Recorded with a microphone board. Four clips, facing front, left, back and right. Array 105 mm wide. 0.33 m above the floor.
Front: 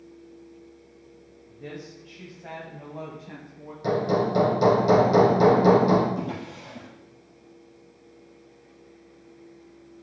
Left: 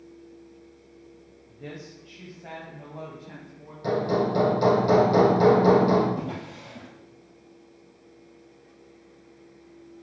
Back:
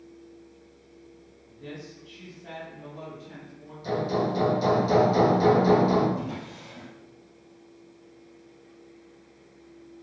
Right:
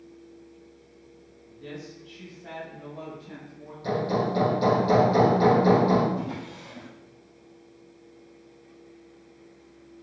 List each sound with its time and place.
1.5 s a woman speaking: 70° left, 2 m; by 3.7 s 15° left, 3 m
3.8 s hammering: 35° left, 5 m
6.2 s a drawer: 35° left, 4 m